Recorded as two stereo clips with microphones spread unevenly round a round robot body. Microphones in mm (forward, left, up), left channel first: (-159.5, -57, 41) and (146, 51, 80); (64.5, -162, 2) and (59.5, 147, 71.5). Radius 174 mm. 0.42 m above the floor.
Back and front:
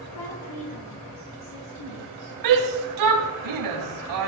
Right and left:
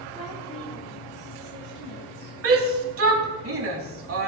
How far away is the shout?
About 3.5 m.